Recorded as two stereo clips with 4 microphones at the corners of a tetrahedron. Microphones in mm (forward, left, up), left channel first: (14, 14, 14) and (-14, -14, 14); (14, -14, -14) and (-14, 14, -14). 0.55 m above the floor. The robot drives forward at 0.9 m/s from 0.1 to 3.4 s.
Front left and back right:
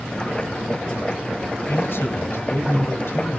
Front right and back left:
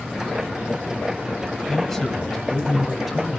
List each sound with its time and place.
1.7 s a man speaking: 35° left, 3 m; by 3.4 s 55° left, 2 m